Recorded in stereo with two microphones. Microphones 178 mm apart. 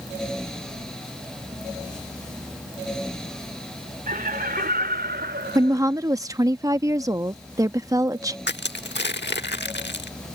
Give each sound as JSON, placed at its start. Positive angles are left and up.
{"t": 4.1, "sound": "laughter", "side_deg": -50}
{"t": 5.5, "sound": "a woman speaking", "side_deg": -20}
{"t": 8.5, "sound": "crushing", "side_deg": 80}